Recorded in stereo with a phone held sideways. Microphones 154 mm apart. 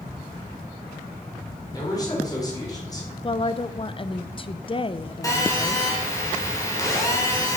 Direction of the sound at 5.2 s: 20° left (ahead or behind).